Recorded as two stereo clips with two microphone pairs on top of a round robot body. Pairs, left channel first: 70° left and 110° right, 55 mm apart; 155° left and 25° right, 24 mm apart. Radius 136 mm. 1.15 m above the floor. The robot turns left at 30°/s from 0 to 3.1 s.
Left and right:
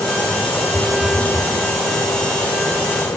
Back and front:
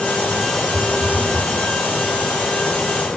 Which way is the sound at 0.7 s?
90° right.